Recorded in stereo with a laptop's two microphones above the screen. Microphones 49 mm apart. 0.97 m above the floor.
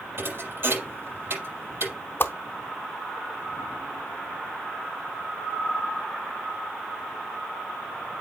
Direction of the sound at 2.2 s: 50° left (ahead or behind).